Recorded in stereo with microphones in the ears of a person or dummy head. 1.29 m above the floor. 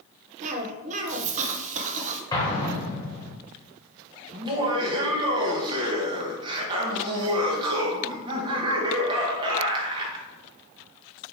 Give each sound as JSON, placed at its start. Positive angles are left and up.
{"t": 0.4, "sound": "a cough", "side_deg": -40, "distance_m": 0.8}
{"t": 2.3, "sound": "an explosion", "side_deg": 20, "distance_m": 0.9}
{"t": 4.3, "sound": "laughter", "side_deg": -25, "distance_m": 1.0}